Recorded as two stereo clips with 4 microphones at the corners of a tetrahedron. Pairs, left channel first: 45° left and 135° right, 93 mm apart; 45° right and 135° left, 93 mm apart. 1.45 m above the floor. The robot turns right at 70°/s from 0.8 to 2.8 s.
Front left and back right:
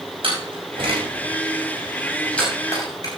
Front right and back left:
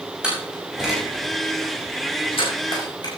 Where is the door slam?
145° right, 6 m; by 3.1 s 5° right, 6 m.